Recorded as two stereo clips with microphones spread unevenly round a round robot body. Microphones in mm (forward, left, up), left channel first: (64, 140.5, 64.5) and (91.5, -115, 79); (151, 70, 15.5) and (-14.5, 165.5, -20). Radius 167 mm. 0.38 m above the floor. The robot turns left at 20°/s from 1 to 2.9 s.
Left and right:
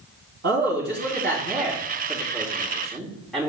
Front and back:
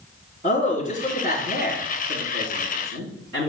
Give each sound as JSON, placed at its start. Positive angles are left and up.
{"t": 0.4, "sound": "a man speaking", "azimuth_deg": -140, "distance_m": 3.0}